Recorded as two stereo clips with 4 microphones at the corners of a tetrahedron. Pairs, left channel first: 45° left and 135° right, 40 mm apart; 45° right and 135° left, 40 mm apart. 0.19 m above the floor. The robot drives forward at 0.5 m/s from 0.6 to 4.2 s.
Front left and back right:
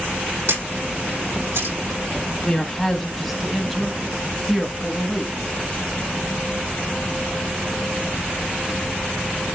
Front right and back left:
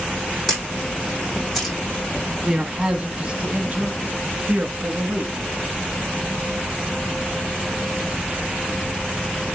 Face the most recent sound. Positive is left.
turn(degrees=155)